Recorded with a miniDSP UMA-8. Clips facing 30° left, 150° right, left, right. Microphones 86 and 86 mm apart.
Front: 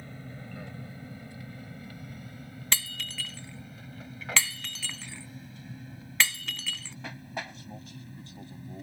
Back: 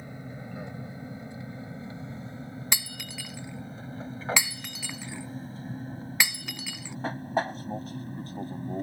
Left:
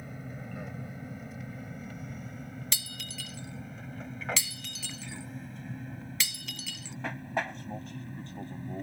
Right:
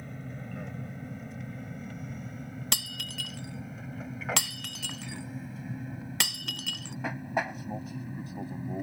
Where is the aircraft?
170° left; by 8.8 s 170° right.